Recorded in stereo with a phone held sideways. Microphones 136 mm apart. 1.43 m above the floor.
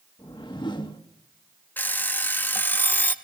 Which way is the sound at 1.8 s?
15° left (ahead or behind).